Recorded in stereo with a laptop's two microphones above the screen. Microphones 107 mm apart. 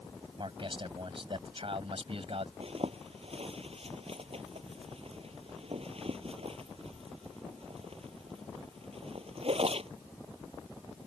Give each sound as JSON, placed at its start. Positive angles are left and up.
{"t": 0.4, "sound": "a man speaking", "side_deg": -55}
{"t": 2.6, "sound": "a zipper", "side_deg": -70}